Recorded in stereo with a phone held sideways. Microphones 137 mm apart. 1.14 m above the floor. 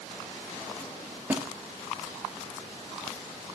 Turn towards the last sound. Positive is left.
turn(degrees=-15)  # may be behind; listen again after turning